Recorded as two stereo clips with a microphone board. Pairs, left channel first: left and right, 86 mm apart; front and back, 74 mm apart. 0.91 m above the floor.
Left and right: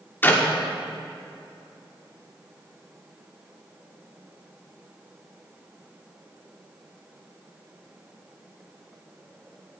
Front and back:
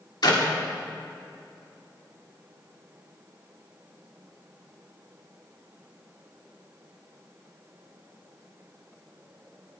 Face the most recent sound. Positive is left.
turn(degrees=25)